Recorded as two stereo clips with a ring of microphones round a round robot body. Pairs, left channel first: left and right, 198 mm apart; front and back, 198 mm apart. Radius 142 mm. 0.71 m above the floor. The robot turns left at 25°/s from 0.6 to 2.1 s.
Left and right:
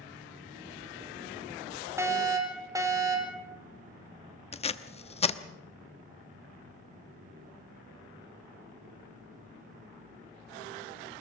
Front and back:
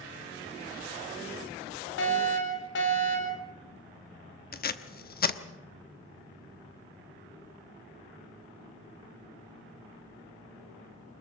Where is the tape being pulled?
35° left, 1.1 m.